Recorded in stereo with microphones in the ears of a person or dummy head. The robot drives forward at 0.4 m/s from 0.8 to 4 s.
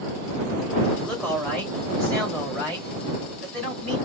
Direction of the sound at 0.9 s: 10° left (ahead or behind).